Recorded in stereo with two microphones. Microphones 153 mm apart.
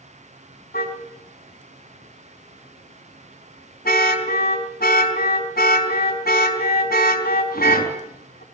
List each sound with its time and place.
0.7 s a car horn: 80° left, 4 m